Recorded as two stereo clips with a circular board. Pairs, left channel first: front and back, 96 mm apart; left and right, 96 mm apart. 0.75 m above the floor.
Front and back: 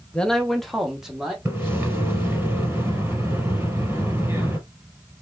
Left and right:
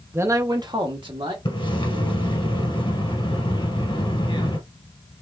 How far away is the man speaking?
About 0.7 m.